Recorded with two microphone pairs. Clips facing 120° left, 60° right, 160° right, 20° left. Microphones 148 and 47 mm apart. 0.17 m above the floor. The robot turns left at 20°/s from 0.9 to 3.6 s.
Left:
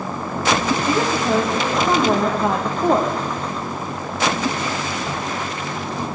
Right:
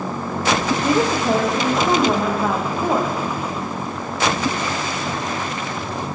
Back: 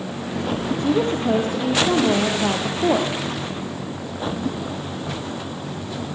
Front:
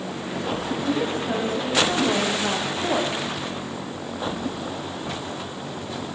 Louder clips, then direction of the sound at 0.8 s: Right 2 dB, back 6 dB; 130° right.